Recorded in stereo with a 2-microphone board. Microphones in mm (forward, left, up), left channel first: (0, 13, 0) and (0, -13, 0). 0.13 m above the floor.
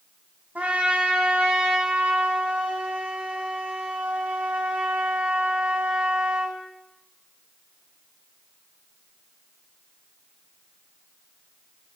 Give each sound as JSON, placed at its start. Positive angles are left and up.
{"t": 0.6, "sound": "a trumpet", "side_deg": -75, "distance_m": 2.5}